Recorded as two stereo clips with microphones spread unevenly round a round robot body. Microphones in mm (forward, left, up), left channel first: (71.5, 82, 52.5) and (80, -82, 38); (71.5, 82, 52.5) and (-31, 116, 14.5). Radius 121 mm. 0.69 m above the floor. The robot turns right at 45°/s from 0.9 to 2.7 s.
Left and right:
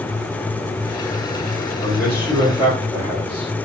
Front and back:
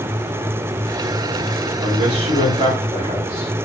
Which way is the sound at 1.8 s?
165° left.